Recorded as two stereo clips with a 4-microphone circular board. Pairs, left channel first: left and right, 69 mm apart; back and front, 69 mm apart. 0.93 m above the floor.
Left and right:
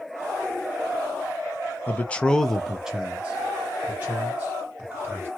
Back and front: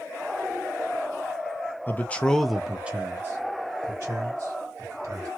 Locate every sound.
1.9 s a man speaking: 140° left, 0.6 m; by 5.3 s 35° right, 1.6 m